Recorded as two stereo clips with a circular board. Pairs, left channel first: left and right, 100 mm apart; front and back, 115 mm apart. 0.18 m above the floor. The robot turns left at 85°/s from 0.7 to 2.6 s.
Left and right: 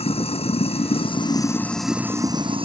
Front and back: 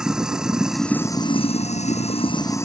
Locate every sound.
0.0 s running water: 95° left; by 2.6 s 65° right